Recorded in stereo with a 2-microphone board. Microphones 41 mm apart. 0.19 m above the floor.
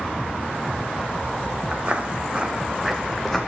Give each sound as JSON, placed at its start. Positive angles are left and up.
{"t": 1.7, "sound": "footsteps", "side_deg": -35, "distance_m": 1.5}